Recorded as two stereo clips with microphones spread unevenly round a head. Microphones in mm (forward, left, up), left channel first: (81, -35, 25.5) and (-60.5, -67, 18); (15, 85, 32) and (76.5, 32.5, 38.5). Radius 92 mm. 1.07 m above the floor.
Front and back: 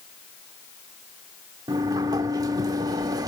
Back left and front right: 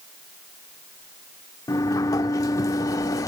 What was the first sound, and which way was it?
A sliding door, 135° left.